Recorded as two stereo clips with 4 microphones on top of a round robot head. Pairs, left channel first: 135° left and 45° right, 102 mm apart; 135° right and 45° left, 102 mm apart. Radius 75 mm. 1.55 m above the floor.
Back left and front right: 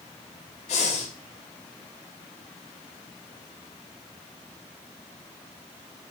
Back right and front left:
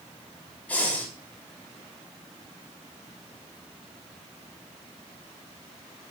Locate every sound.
0.7 s breathing: 145° left, 4.5 m